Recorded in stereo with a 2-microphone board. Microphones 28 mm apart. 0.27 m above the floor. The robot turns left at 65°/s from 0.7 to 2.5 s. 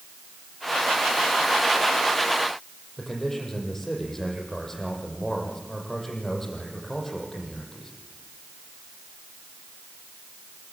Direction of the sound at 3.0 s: 10° left (ahead or behind).